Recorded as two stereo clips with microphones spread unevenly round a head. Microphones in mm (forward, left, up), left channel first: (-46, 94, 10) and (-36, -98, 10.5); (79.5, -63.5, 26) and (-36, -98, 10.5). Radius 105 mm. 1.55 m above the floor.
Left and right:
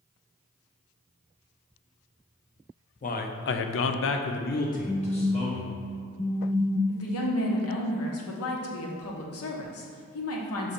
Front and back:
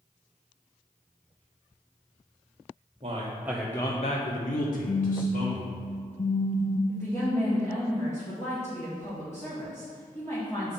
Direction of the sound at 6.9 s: 95° left.